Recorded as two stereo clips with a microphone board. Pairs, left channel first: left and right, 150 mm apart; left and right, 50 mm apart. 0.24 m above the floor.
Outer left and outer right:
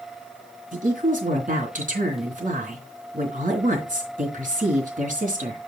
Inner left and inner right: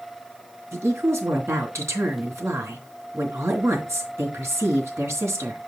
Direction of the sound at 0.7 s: 65° right (ahead or behind).